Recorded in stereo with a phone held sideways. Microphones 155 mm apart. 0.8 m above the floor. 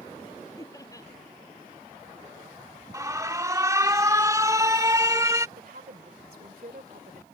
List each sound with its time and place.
0.6 s laughter: 20° left (ahead or behind)
2.9 s an alarm: 20° right (ahead or behind)
5.6 s a woman speaking: 75° right (ahead or behind)